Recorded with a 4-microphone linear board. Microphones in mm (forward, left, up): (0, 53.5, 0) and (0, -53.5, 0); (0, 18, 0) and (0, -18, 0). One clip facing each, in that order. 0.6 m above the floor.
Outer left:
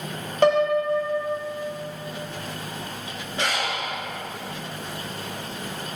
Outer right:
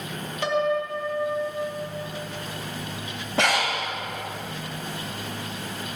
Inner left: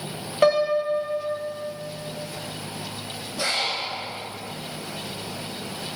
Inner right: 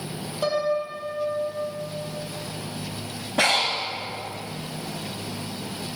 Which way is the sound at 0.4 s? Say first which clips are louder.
Outer left 5 dB, inner left 5 dB; 50° left (ahead or behind).